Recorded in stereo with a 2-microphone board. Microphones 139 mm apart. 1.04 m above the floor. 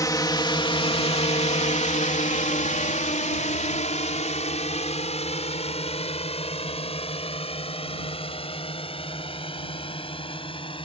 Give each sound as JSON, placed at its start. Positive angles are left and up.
{"t": 0.0, "sound": "a drone", "side_deg": 25}